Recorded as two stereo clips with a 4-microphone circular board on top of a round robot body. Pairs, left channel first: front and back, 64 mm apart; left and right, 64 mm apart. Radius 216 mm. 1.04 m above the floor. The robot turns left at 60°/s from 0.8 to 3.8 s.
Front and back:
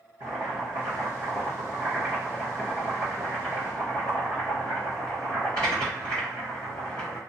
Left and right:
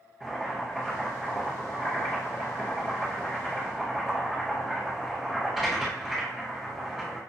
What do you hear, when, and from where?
0.2 s boiling: 175° left, 1.0 m; by 7.2 s 5° right, 1.0 m